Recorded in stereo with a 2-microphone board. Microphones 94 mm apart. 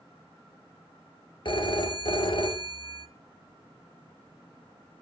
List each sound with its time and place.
1.4 s a phone ringing: 55° left (ahead or behind), 1.4 m